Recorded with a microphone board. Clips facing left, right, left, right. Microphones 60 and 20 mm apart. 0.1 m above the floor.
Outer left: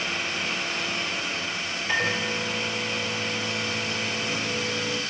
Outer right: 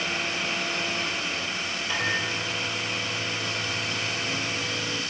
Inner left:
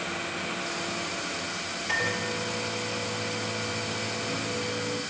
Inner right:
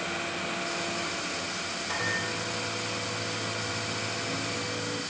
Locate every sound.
1.9 s a microwave: 50° left (ahead or behind), 1.7 m